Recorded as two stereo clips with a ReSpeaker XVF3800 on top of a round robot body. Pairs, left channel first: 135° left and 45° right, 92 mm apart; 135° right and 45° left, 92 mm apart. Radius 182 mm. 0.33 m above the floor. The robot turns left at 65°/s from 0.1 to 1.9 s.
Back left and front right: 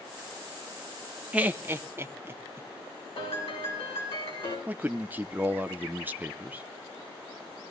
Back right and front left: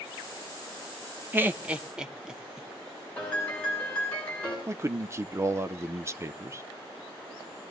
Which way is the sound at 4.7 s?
10° left.